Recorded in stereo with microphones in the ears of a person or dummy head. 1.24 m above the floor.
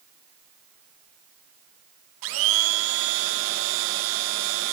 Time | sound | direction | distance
2.2 | a blender | 70° right (ahead or behind) | 0.7 m